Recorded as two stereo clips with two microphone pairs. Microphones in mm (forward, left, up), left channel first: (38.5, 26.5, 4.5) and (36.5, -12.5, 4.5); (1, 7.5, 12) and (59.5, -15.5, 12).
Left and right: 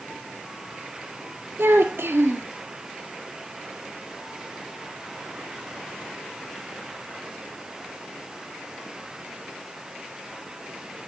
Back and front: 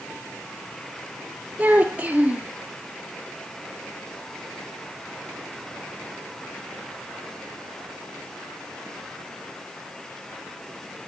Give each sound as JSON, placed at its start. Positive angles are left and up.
{"t": 1.6, "sound": "a child speaking", "azimuth_deg": -85, "distance_m": 2.0}